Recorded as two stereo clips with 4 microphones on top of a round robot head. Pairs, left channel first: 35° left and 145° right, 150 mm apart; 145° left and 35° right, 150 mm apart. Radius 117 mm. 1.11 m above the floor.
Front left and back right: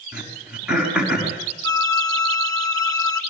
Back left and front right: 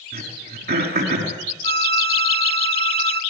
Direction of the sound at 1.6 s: 30° right.